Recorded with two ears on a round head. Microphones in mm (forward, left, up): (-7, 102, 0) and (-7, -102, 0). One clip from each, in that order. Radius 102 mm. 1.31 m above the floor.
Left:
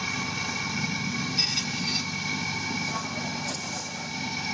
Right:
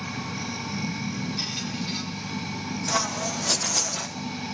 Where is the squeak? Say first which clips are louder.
Left 6 dB; 25° left (ahead or behind), 1.0 m.